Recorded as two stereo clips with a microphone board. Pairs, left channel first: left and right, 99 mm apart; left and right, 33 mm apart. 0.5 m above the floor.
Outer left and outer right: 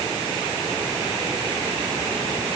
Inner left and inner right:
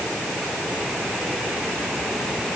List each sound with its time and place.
Only background noise.